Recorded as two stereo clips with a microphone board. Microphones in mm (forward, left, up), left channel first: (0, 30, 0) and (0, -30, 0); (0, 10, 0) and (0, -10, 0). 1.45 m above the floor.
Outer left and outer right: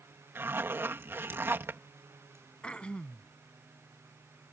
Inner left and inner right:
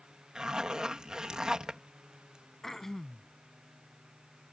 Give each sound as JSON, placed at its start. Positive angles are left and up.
{"t": 0.3, "sound": "a zipper", "side_deg": -40}
{"t": 2.6, "sound": "throat clearing", "side_deg": 20}